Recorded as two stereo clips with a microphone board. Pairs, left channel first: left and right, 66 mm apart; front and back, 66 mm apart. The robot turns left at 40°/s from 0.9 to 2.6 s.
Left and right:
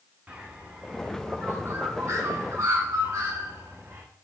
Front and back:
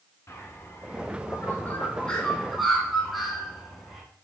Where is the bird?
25° right, 0.8 m; by 4.0 s 90° right, 0.8 m.